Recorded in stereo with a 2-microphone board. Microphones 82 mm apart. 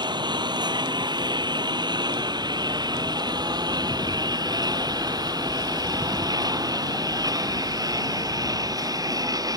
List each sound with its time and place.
0.0 s a lawn mower: 60° right (ahead or behind); by 9.6 s 50° right (ahead or behind)